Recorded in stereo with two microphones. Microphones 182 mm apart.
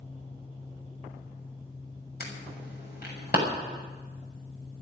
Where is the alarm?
60° left (ahead or behind), 7 m.